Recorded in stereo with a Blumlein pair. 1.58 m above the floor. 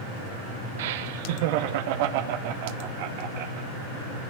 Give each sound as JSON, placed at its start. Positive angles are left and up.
{"t": 0.8, "sound": "laughter", "azimuth_deg": -55, "distance_m": 1.3}